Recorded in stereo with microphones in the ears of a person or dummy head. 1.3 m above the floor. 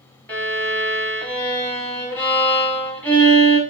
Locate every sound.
0.3 s a violin: 5° left (ahead or behind), 0.7 m